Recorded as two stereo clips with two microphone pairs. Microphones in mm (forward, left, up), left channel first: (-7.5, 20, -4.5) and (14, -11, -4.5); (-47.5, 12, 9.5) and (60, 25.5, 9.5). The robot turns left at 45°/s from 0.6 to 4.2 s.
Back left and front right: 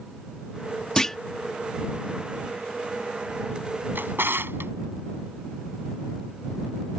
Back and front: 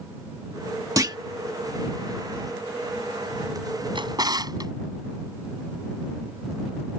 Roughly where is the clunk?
Ahead left.